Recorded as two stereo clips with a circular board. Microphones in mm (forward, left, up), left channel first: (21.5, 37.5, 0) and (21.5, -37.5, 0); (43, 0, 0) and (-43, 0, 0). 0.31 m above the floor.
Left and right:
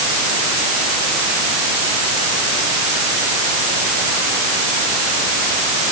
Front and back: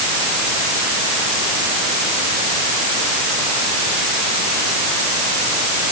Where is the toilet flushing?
No toilet flushing in this recording.